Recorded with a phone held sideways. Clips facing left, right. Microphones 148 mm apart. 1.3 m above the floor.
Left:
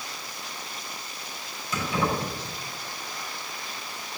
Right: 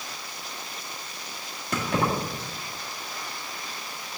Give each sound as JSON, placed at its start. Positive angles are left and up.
{"t": 1.7, "sound": "keys jangling", "side_deg": -65, "distance_m": 2.0}